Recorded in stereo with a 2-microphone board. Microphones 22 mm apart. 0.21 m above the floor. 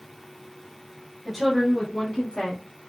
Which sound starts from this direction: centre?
A woman speaking, at 1.2 s.